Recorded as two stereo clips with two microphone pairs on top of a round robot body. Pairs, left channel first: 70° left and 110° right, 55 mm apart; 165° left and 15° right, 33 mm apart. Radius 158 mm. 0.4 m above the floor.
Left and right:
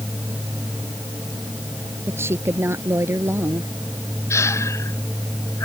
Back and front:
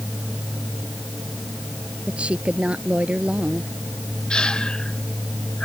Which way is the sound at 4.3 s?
105° left.